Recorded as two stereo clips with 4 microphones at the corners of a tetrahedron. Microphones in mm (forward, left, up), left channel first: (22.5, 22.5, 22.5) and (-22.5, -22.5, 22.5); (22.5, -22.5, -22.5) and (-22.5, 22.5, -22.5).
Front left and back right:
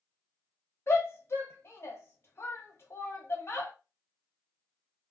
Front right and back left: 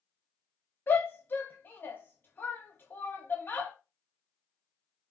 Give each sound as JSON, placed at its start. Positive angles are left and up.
{"t": 0.9, "sound": "a shout", "azimuth_deg": 5, "distance_m": 1.1}